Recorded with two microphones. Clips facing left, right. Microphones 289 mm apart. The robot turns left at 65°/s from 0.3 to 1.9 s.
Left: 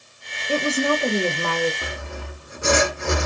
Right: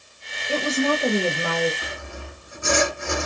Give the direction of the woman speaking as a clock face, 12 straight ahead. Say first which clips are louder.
Left 1 dB; 11 o'clock.